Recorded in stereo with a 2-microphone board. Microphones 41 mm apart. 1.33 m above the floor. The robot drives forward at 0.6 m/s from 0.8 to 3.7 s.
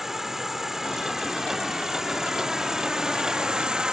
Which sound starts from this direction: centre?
An insect, at 0.0 s.